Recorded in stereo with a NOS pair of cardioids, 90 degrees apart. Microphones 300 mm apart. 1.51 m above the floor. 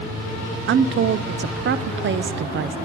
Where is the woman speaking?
40° right, 0.6 m.